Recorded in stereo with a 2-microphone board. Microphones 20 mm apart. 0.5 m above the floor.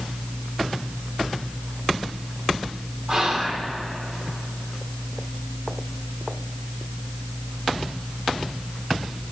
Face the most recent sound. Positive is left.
turn(degrees=-30)  # may be behind; listen again after turning